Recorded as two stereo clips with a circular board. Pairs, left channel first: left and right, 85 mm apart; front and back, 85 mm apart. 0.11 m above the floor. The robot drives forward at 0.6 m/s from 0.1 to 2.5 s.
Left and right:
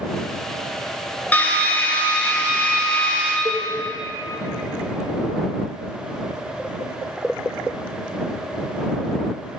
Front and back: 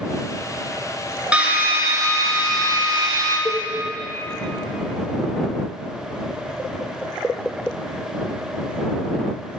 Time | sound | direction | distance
1.3 | a drill | 125° left | 0.8 m
3.5 | a cowbell | 45° right | 1.0 m